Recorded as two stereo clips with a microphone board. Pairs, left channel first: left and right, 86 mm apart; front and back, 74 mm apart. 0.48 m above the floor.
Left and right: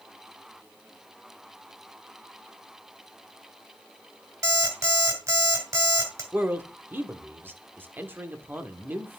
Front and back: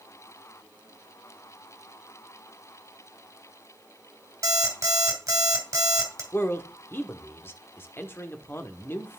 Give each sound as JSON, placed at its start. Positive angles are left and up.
{"t": 4.4, "sound": "an alarm clock", "azimuth_deg": -140, "distance_m": 1.9}
{"t": 6.3, "sound": "a man speaking", "azimuth_deg": -35, "distance_m": 0.9}